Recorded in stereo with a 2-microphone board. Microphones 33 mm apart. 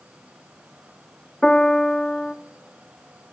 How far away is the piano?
About 1.3 m.